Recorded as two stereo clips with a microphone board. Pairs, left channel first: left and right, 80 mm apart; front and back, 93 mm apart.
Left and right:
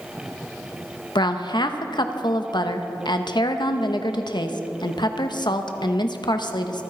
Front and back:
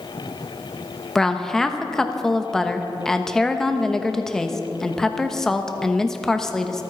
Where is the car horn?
No car horn in this recording.